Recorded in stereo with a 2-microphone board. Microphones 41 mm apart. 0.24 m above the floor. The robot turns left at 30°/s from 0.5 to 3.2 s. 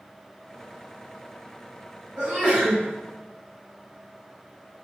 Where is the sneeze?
30° right (ahead or behind), 1.8 m; by 2.8 s 20° right (ahead or behind), 1.8 m.